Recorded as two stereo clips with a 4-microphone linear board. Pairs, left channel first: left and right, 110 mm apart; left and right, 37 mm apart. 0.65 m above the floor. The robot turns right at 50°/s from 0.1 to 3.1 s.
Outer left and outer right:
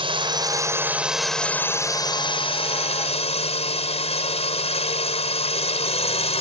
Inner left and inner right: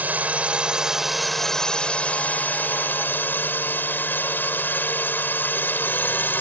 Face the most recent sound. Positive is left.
turn(degrees=95)